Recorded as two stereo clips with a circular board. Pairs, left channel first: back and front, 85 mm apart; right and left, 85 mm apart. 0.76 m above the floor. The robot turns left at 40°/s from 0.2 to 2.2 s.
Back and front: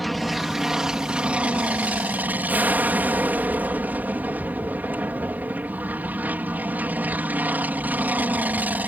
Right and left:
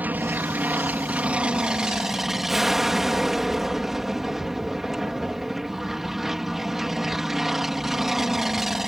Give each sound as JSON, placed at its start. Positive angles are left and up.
{"t": 0.0, "sound": "an aircraft", "azimuth_deg": 90}